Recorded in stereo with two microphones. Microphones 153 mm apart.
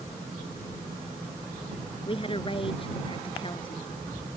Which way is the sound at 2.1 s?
35° left (ahead or behind).